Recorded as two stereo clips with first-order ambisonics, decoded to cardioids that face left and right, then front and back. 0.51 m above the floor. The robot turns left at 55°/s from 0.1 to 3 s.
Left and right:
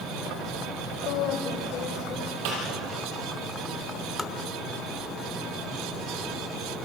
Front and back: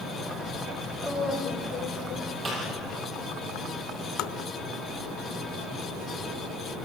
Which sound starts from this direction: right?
A snare drum, at 2.5 s.